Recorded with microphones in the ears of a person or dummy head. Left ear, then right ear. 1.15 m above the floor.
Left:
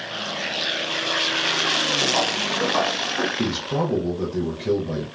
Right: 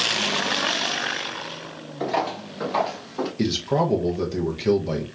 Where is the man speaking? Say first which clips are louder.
Right 2 dB; 60° right (ahead or behind), 0.6 m.